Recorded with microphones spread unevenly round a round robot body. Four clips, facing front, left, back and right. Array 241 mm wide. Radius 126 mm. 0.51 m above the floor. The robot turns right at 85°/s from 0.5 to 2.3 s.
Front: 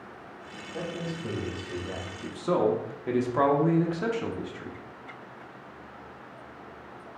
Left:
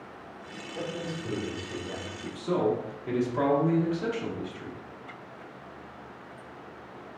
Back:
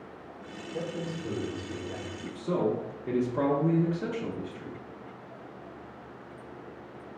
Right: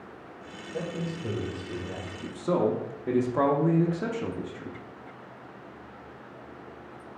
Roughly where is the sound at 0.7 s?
Right.